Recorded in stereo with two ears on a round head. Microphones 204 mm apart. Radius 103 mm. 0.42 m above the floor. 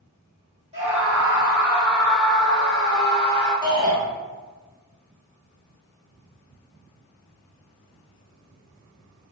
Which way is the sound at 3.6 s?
20° right (ahead or behind).